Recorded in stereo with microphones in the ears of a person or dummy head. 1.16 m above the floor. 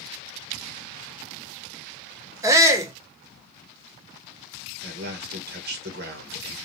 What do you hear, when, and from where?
2.4 s a shout: 15° right (ahead or behind), 0.6 m
4.8 s a man speaking: 55° right (ahead or behind), 1.0 m